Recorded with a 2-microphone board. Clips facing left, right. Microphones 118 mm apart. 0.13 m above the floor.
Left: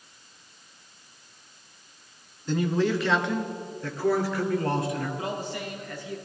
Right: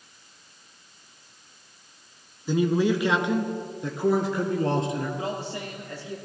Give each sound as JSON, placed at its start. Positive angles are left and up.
{"t": 2.5, "sound": "a man speaking", "side_deg": -10, "distance_m": 1.2}
{"t": 5.2, "sound": "a man speaking", "side_deg": -30, "distance_m": 3.5}